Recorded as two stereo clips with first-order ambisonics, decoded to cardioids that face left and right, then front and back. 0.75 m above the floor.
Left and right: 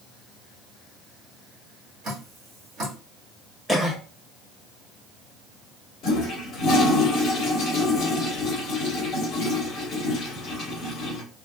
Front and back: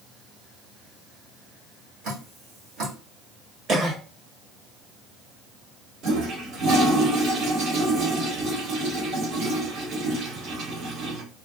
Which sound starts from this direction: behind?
A cough, at 3.7 s.